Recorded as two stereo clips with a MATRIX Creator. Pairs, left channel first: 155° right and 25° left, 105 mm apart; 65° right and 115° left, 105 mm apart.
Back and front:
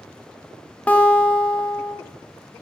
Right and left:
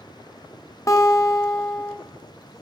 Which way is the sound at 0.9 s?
90° right.